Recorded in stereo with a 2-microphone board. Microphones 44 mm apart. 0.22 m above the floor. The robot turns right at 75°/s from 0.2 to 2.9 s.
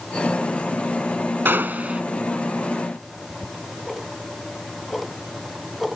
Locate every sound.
1.4 s a gunshot: 70° right; by 2.0 s 30° right
3.0 s ticking: centre (ahead or behind)